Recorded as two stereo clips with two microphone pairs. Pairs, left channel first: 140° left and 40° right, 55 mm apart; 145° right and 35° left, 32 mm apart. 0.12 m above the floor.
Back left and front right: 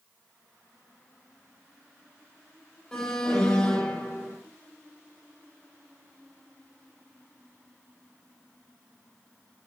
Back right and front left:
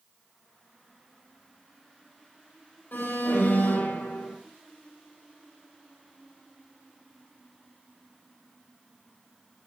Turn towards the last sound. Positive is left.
turn(degrees=-145)